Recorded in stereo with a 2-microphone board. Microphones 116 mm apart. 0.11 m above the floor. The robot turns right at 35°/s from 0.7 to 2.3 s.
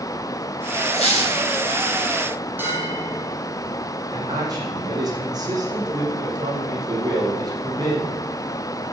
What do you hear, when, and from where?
0.9 s a squeak: 65° left (ahead or behind), 5.5 m; by 1.4 s 50° left (ahead or behind), 5.5 m
2.6 s a bell: 15° right (ahead or behind), 4.5 m
4.1 s a man speaking: 35° right (ahead or behind), 5.5 m